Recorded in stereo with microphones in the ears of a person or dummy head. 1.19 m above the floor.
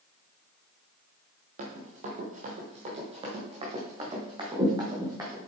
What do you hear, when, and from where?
1.6 s running footsteps: 45° right (ahead or behind), 2.5 m; by 5.5 s 20° right (ahead or behind), 3.5 m